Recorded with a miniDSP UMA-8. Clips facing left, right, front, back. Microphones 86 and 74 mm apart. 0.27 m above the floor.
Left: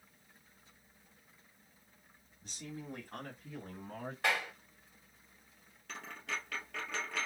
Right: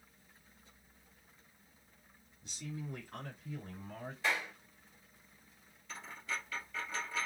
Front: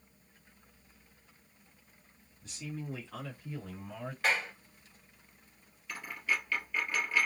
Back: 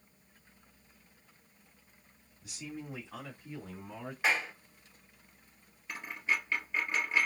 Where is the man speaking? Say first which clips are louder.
Right 1 dB, front 2 dB; 100° left, 2.0 m; by 4.1 s 115° left, 2.5 m.